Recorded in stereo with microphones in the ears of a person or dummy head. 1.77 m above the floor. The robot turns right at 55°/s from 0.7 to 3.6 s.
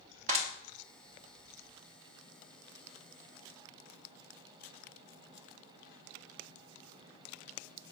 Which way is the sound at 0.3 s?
45° right (ahead or behind).